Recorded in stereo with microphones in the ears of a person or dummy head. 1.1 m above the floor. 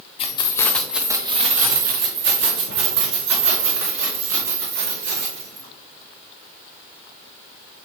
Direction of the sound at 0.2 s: 35° left (ahead or behind).